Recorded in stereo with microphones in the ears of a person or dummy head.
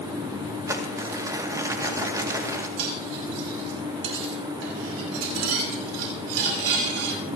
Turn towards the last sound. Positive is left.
turn(degrees=-85)